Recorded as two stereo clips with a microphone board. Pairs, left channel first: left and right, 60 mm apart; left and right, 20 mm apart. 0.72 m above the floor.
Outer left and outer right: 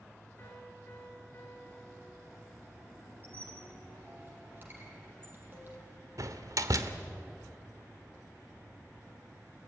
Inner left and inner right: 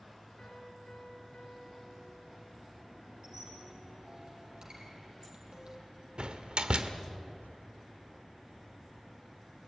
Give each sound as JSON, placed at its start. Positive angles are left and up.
{"t": 0.4, "sound": "a piano", "side_deg": 30, "distance_m": 5.0}
{"t": 3.2, "sound": "a squeak", "side_deg": -30, "distance_m": 5.5}
{"t": 6.2, "sound": "a door slam", "side_deg": -65, "distance_m": 1.7}